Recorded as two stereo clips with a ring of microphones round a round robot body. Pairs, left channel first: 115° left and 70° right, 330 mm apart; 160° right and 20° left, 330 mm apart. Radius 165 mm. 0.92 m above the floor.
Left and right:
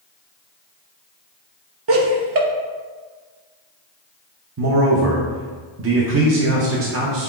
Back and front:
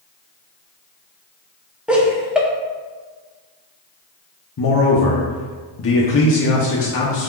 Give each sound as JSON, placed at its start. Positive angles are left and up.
{"t": 1.9, "sound": "laughter", "azimuth_deg": -65, "distance_m": 0.6}
{"t": 4.6, "sound": "a man speaking", "azimuth_deg": -110, "distance_m": 0.6}